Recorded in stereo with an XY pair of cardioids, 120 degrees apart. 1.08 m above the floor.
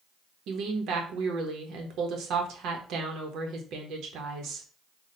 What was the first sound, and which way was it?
A woman speaking, 70° right.